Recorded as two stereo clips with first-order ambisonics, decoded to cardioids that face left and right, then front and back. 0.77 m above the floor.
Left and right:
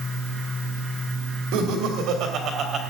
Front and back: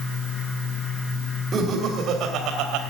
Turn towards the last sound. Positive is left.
turn(degrees=-150)